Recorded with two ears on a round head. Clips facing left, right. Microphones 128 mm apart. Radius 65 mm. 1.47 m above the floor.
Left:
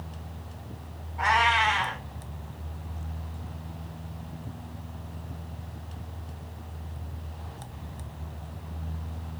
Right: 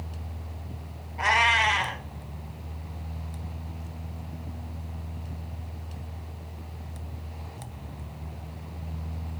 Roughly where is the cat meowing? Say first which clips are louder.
Left 1 dB; right.